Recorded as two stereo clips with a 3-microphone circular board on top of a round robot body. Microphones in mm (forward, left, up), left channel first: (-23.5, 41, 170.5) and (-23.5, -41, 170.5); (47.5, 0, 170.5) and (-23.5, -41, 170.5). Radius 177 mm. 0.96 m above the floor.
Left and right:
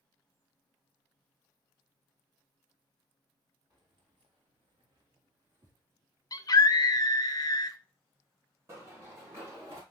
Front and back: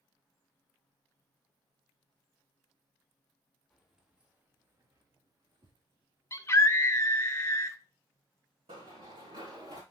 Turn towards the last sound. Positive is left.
turn(degrees=-135)